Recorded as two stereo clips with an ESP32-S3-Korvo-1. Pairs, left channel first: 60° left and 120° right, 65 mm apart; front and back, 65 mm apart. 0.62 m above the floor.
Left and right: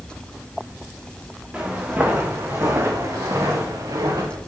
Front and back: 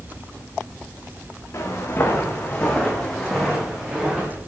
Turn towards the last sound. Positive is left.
turn(degrees=-105)